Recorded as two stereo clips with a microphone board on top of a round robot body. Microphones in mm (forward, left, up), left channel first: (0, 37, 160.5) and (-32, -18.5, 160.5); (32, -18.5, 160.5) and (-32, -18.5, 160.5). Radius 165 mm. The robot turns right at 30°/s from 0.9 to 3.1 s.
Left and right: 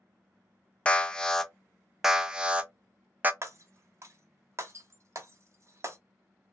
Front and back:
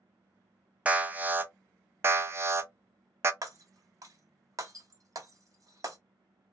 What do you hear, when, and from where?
0.8 s an alarm: 125° left, 0.6 m; by 3.3 s 170° right, 0.6 m
3.4 s breaking glass: 160° right, 0.8 m